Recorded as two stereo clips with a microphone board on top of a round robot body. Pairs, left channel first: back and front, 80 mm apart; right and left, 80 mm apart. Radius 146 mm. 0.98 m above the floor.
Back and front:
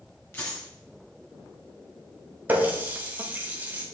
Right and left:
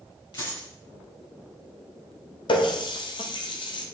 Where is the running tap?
70° right, 0.9 m.